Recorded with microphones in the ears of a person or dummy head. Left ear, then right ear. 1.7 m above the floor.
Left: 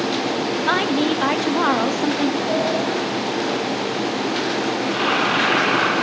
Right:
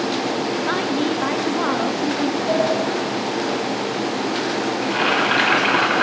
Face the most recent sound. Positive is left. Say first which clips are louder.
# right 2 dB
turn(degrees=-30)  # may be behind; listen again after turning